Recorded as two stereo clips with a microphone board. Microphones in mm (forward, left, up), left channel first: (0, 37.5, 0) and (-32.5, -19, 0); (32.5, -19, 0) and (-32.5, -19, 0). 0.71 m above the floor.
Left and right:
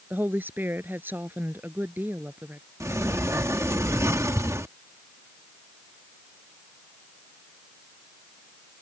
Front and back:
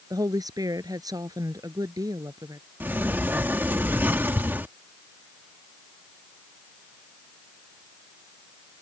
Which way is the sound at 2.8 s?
130° right.